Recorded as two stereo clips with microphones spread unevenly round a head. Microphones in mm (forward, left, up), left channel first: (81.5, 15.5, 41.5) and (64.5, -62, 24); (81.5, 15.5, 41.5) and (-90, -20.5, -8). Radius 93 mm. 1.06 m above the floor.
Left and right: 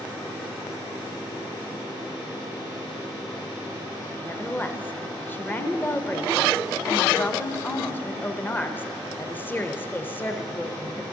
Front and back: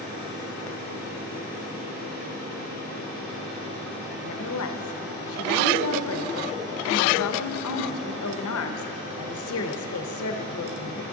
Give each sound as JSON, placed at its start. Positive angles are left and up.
{"t": 4.2, "sound": "a woman speaking", "azimuth_deg": 10, "distance_m": 0.8}